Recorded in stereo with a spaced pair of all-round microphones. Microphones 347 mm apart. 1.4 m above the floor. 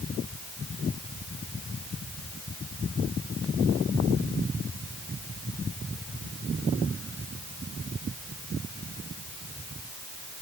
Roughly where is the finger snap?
No finger snap in this recording.